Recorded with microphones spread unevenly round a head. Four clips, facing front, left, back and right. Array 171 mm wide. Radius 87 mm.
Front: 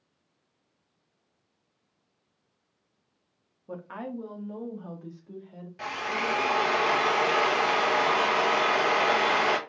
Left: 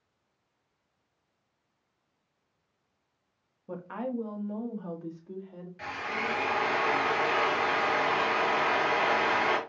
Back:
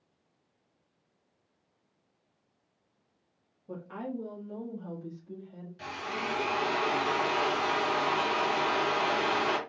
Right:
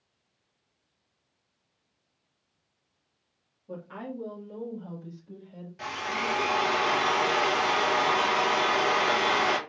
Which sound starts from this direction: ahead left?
A woman speaking, at 3.7 s.